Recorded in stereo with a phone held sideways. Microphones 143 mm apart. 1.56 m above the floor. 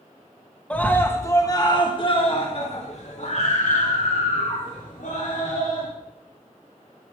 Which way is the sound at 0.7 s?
10° left (ahead or behind).